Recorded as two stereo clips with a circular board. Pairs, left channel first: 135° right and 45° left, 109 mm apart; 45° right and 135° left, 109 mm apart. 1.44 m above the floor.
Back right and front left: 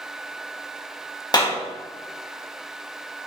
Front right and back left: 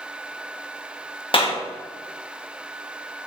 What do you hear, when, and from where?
1.3 s a clap: 85° right, 1.5 m